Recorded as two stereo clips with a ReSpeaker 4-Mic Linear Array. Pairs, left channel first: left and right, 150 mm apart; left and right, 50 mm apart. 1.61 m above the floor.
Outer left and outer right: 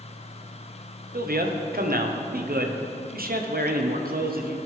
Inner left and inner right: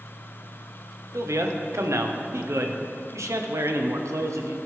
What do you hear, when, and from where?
1.1 s a man speaking: 80° right, 1.0 m